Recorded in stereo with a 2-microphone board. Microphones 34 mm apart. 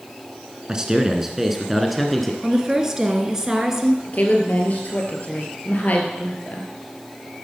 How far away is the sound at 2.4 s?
About 1.9 m.